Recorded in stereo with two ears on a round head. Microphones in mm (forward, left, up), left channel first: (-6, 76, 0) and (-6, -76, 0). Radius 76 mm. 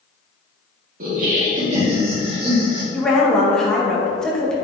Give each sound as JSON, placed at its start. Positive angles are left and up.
{"t": 1.0, "sound": "laughter", "side_deg": -50, "distance_m": 2.5}
{"t": 2.9, "sound": "a woman speaking", "side_deg": 5, "distance_m": 1.6}